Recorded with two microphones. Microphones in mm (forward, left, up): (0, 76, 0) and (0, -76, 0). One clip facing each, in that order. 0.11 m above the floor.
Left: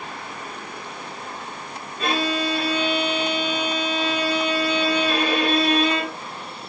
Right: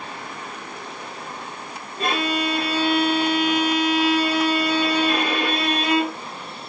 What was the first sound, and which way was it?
A violin, 35° right (ahead or behind).